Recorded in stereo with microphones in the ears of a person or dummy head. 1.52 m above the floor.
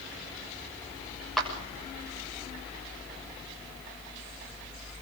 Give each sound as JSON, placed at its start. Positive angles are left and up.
{"t": 1.4, "sound": "a clap", "side_deg": 0, "distance_m": 6.5}